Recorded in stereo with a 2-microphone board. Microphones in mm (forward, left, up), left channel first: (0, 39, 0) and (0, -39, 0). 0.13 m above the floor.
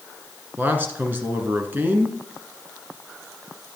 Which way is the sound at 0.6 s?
25° right (ahead or behind).